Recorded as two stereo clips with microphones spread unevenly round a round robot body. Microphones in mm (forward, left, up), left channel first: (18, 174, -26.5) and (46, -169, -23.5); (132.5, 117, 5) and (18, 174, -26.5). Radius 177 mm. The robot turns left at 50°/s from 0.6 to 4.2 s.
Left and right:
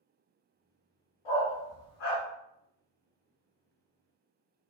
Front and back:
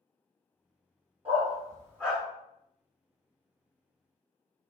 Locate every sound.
1.2 s a dog barking: 105° left, 1.6 m; by 2.2 s 55° left, 1.6 m